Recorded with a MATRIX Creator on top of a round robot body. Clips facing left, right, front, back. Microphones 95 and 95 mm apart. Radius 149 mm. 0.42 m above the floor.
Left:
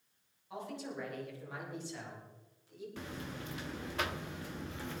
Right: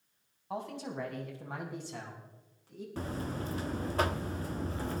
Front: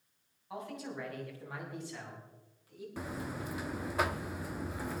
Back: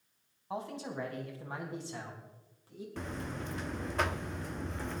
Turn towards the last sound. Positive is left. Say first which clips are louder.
# right 9 dB, even
turn(degrees=-80)